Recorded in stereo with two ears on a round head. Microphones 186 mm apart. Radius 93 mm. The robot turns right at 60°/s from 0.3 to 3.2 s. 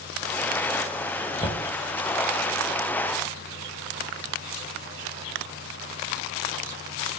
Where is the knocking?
25° left (ahead or behind), 1.9 m; by 1.7 s 5° left (ahead or behind), 1.9 m.